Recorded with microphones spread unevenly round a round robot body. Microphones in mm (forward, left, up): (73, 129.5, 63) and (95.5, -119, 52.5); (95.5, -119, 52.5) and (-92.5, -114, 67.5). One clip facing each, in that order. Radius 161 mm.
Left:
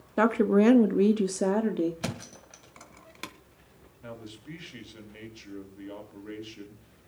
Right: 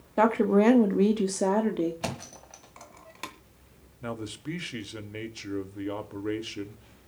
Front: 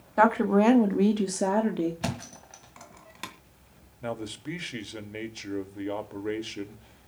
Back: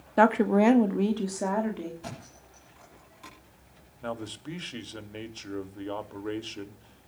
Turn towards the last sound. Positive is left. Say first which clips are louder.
# right 8 dB, front 2 dB
turn(degrees=-75)